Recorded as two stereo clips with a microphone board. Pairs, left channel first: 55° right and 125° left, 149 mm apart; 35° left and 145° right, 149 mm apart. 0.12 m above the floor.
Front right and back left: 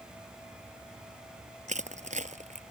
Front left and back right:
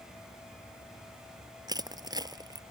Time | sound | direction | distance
1.7 | crushing | 155° left | ?